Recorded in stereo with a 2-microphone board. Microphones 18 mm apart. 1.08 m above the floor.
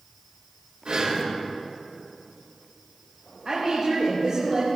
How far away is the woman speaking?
About 3.5 m.